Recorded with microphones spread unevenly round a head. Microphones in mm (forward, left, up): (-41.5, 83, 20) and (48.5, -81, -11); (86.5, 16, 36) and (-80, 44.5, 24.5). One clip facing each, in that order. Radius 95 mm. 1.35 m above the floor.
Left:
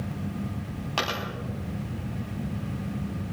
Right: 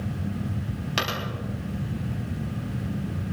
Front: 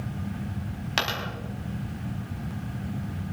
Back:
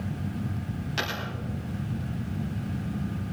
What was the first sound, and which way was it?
A dropped coin, 10° left.